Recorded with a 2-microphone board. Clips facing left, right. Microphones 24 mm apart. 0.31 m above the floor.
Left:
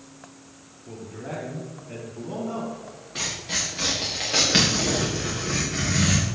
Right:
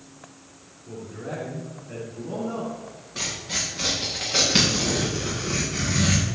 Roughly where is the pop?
No pop in this recording.